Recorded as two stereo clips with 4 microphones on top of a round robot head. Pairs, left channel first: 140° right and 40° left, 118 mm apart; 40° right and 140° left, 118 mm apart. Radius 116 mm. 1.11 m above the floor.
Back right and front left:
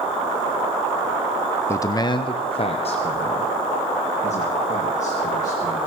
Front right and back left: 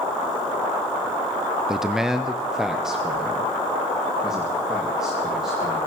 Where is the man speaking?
140° right, 0.6 m; by 5.8 s 135° right, 2.5 m.